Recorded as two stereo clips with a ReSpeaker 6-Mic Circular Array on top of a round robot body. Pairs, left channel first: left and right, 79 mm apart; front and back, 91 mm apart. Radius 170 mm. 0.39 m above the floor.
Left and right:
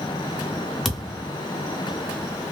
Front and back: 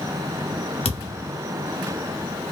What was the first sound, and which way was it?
A thud, straight ahead.